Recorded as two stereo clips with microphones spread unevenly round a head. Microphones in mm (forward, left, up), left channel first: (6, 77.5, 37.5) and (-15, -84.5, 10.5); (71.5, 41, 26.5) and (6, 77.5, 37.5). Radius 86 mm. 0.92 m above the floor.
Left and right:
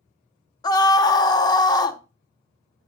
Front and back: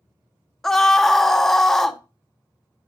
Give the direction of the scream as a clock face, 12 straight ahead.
11 o'clock.